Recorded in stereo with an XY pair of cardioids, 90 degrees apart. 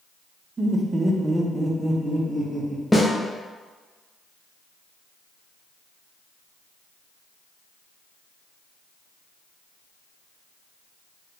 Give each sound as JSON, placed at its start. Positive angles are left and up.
{"t": 0.6, "sound": "laughter", "azimuth_deg": -45, "distance_m": 0.7}
{"t": 2.9, "sound": "a snare drum", "azimuth_deg": 15, "distance_m": 0.8}